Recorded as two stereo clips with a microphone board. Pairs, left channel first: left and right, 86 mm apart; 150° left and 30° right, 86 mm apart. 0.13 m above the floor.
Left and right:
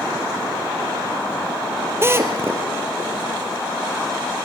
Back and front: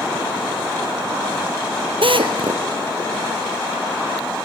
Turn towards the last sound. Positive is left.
turn(degrees=-30)